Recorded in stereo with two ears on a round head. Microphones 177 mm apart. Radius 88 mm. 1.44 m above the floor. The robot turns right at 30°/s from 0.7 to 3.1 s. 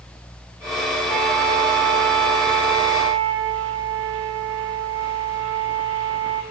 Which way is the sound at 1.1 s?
135° right.